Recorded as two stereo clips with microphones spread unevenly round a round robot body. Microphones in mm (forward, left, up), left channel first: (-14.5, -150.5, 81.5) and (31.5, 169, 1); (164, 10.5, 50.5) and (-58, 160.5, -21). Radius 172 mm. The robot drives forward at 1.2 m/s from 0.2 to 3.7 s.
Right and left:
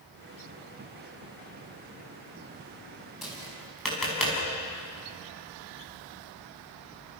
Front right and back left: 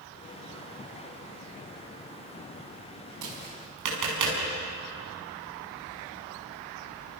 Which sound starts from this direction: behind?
Tapping, at 3.2 s.